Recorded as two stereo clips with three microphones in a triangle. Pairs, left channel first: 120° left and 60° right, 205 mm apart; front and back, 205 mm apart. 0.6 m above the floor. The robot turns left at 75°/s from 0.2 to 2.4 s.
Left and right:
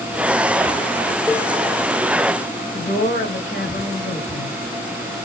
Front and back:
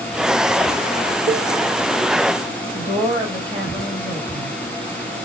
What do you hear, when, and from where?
1.3 s a cowbell: 165° right, 1.0 m; by 1.5 s 175° left, 1.0 m
2.7 s a woman speaking: 115° left, 2.5 m